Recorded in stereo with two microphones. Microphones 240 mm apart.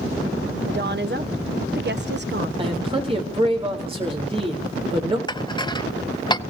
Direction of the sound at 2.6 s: 25° right (ahead or behind).